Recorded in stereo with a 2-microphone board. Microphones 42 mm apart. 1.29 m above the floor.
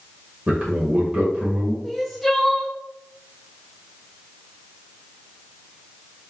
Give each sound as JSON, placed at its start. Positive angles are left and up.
{"t": 0.5, "sound": "a man speaking", "side_deg": -45, "distance_m": 1.3}
{"t": 1.8, "sound": "crying", "side_deg": 5, "distance_m": 0.7}